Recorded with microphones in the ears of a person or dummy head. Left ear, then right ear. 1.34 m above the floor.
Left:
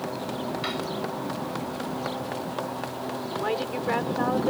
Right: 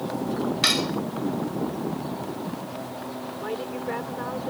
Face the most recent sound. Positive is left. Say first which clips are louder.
# left 3 dB
turn(degrees=30)  # may be behind; listen again after turning